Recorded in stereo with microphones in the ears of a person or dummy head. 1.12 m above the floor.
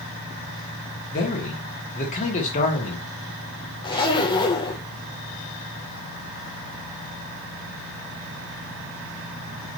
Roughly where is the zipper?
Left.